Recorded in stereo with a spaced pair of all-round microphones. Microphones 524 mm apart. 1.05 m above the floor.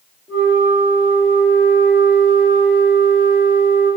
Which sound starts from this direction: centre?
A flute, at 0.3 s.